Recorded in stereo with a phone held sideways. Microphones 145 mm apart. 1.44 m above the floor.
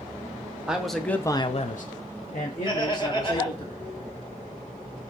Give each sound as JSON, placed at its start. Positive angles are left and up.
{"t": 0.7, "sound": "a man speaking", "side_deg": -5, "distance_m": 1.0}
{"t": 2.6, "sound": "laughter", "side_deg": 30, "distance_m": 1.4}